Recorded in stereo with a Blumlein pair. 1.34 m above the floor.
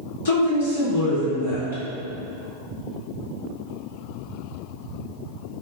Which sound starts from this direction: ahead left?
A woman speaking, at 0.2 s.